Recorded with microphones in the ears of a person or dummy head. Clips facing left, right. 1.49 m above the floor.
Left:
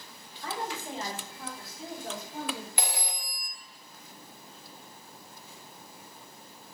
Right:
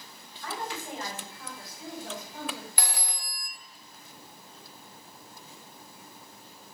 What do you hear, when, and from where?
0.4 s a woman speaking: 25° left (ahead or behind), 3 m; by 2.7 s 20° left (ahead or behind), 6 m
2.8 s a phone ringing: 25° left (ahead or behind), 1.0 m